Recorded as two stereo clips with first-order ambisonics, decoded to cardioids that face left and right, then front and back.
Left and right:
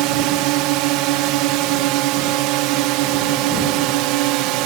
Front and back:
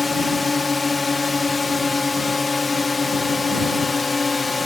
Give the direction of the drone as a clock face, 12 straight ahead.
3 o'clock.